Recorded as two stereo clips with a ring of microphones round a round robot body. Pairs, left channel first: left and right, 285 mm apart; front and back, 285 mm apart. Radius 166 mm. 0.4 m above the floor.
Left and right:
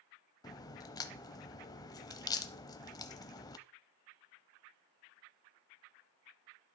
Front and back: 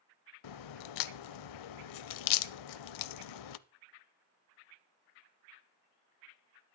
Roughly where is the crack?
Ahead.